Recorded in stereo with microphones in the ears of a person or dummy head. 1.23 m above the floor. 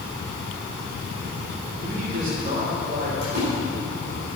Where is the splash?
65° right (ahead or behind), 4.5 m.